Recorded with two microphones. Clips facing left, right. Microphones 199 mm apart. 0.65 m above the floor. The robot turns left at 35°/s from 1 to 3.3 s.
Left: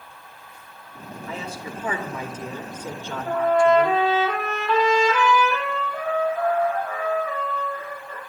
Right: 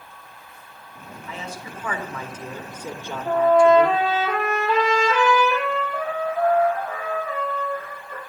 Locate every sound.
1.3 s a man speaking: 45° left, 2.5 m; by 4.0 s 25° right, 2.5 m
3.2 s a trumpet: 40° right (ahead or behind), 8 m